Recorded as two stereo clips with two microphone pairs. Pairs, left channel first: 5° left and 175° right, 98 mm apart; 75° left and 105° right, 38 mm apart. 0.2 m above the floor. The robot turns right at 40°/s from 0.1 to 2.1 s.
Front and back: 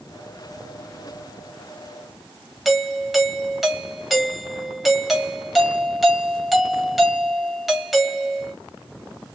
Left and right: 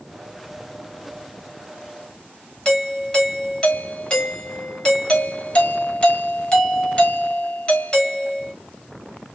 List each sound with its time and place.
2.6 s a doorbell: 100° left, 1.5 m